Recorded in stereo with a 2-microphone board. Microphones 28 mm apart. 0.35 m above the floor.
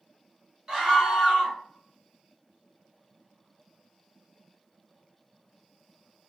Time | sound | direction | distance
0.7 | a scream | 25° right (ahead or behind) | 1.4 m